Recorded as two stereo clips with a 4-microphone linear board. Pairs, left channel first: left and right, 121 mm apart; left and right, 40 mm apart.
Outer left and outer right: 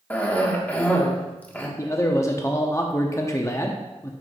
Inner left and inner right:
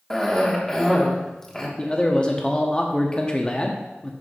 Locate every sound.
0.1 s a cough: 15° left (ahead or behind), 1.3 m
1.8 s a man speaking: 25° left (ahead or behind), 0.7 m